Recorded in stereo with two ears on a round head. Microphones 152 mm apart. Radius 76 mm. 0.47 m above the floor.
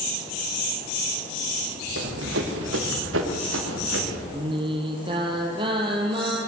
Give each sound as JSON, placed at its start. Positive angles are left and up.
{"t": 2.0, "sound": "running footsteps", "side_deg": -70, "distance_m": 5.0}
{"t": 4.3, "sound": "singing", "side_deg": -30, "distance_m": 4.5}